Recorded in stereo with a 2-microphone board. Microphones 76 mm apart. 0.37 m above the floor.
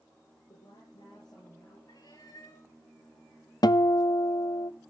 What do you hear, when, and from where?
0.5 s a woman speaking: 75° left (ahead or behind), 7.5 m; by 1.8 s 60° left (ahead or behind), 7 m
1.9 s a cat meowing: 55° left (ahead or behind), 3 m
3.6 s a guitar: 65° left (ahead or behind), 0.5 m